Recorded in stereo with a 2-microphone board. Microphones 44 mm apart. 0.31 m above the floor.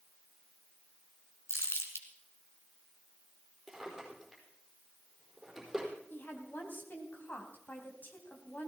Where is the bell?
No bell in this recording.